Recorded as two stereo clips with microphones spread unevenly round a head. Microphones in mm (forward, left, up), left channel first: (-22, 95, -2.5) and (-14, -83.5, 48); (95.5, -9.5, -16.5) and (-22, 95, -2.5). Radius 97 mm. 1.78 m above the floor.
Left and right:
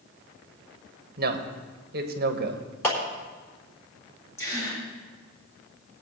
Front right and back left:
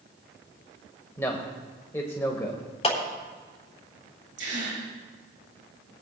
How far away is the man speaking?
About 1.2 m.